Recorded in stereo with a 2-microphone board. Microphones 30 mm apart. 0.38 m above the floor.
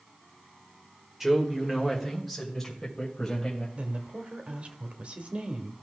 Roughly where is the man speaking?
Centre.